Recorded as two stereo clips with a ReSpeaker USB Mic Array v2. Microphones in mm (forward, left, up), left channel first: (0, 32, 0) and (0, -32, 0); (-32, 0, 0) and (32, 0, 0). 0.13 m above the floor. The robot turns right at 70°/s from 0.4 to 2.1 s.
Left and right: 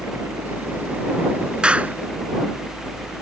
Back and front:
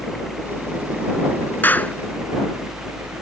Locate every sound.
0.0 s a helicopter: 100° right; by 3.2 s 20° left
1.6 s a clap: 155° right; by 1.9 s 130° right